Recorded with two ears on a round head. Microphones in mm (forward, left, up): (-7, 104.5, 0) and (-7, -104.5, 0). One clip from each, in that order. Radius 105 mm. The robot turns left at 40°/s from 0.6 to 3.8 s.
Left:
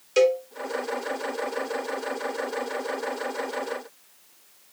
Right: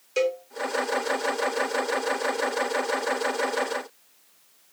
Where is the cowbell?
5° left (ahead or behind), 0.6 m.